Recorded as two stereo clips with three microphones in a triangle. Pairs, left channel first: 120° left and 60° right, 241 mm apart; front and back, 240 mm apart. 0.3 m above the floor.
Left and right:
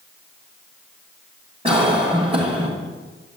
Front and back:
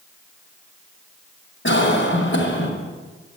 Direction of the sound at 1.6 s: Straight ahead.